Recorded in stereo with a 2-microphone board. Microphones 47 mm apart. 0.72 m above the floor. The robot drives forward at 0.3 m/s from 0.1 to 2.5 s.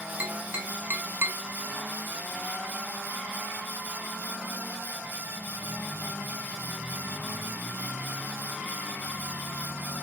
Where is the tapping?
30° right (ahead or behind), 0.7 m; by 1.4 s 50° right (ahead or behind), 0.5 m.